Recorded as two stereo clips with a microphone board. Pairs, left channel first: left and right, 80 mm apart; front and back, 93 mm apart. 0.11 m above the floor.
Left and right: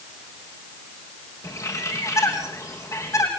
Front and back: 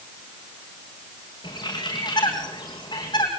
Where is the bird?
40° left, 5.5 m.